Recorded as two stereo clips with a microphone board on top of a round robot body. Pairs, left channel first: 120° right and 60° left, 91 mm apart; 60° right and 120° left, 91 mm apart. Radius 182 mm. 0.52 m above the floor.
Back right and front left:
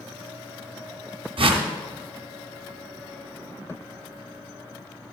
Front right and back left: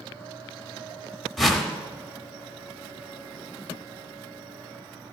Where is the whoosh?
30° left, 0.7 m.